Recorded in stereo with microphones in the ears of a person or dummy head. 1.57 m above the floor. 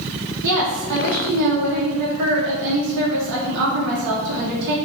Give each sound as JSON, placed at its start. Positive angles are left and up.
{"t": 0.4, "sound": "a woman speaking", "side_deg": -65, "distance_m": 0.9}